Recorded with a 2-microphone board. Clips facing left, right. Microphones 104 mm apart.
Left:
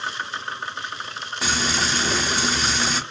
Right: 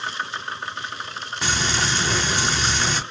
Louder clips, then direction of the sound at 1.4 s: Even; 5° left (ahead or behind).